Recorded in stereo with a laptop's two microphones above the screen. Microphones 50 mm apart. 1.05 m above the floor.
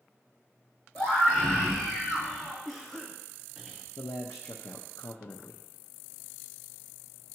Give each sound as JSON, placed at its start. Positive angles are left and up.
{"t": 0.9, "sound": "a scream", "side_deg": 20, "distance_m": 2.5}
{"t": 2.6, "sound": "a cough", "side_deg": -5, "distance_m": 0.8}
{"t": 4.0, "sound": "a man speaking", "side_deg": 75, "distance_m": 0.6}